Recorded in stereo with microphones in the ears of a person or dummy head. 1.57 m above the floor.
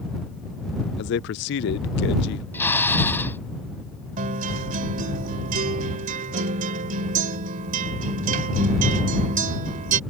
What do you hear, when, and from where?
1.0 s a man speaking: 60° left (ahead or behind)
2.5 s a drill: 10° left (ahead or behind)
4.2 s a guitar: 45° right (ahead or behind)